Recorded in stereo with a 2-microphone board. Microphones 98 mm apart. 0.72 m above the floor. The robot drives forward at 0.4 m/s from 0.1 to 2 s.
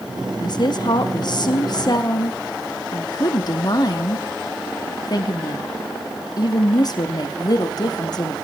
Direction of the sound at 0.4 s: 50° left (ahead or behind).